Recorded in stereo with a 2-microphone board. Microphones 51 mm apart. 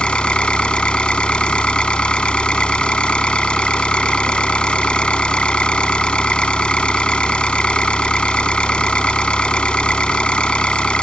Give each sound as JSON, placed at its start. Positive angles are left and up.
{"t": 0.0, "sound": "an engine running", "side_deg": 20}